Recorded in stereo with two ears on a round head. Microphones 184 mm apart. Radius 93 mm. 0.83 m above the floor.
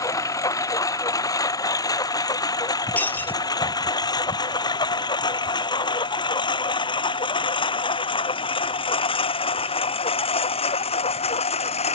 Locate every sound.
0.0 s a lawn mower: 15° left (ahead or behind); by 12.0 s 30° left (ahead or behind)
3.0 s breaking glass: 10° left (ahead or behind)